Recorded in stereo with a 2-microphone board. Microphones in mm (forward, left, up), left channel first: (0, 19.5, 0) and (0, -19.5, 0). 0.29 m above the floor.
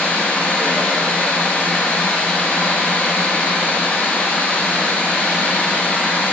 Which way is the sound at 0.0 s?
65° left (ahead or behind).